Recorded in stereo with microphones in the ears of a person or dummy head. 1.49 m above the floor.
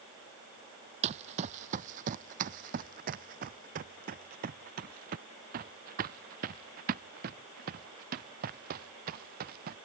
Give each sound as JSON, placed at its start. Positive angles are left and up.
{"t": 1.0, "sound": "running footsteps", "side_deg": -35}